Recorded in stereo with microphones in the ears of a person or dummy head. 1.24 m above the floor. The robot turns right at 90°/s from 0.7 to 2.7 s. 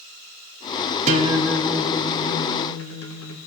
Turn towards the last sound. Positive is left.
turn(degrees=105)